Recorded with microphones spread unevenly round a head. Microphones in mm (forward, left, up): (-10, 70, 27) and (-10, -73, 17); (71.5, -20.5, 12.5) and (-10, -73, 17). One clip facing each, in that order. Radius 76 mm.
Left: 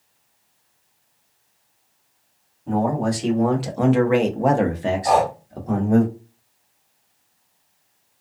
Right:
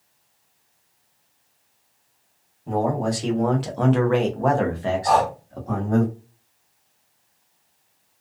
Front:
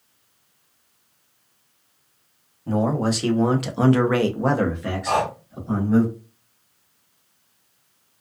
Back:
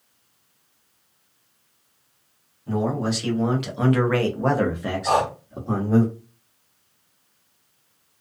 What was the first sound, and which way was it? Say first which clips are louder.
A man speaking: left 1 dB, front 2 dB; 5° right.